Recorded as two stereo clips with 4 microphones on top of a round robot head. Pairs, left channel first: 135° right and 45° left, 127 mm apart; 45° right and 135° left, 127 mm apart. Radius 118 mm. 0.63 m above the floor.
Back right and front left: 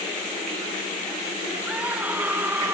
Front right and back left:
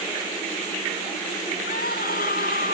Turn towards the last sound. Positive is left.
turn(degrees=-35)